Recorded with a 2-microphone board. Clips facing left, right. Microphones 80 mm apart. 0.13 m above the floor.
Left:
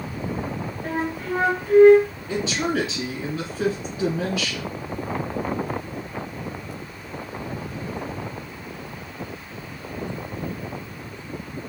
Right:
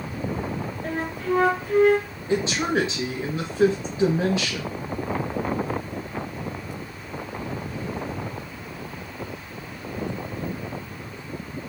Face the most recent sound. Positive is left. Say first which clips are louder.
# right 3 dB
turn(degrees=-25)  # may be behind; listen again after turning